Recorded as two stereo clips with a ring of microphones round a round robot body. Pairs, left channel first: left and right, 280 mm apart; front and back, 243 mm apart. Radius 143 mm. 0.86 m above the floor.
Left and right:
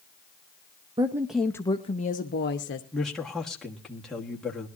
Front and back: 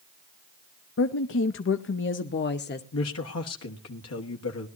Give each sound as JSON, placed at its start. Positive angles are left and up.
{"t": 1.0, "sound": "a woman speaking", "azimuth_deg": -20, "distance_m": 0.7}
{"t": 2.9, "sound": "a man speaking", "azimuth_deg": 0, "distance_m": 1.5}